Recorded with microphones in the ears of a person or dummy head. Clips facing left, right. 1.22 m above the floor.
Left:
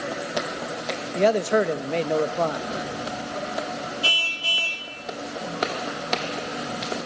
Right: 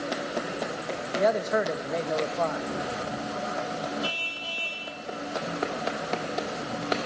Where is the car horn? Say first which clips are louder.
Left 2 dB; 45° left (ahead or behind), 4.5 m.